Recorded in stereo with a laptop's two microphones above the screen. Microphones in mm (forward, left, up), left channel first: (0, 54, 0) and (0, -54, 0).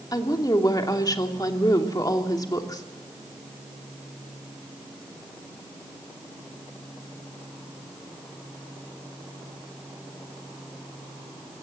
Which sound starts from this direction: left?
A woman speaking, at 0.1 s.